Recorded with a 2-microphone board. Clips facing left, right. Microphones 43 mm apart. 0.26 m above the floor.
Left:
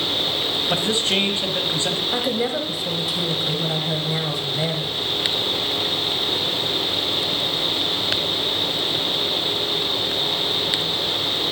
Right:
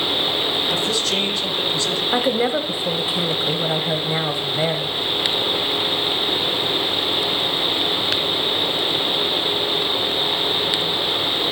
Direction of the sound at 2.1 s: 25° right (ahead or behind).